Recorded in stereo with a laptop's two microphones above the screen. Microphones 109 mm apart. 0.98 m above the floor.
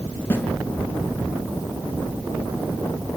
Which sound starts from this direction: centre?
A snare drum, at 0.3 s.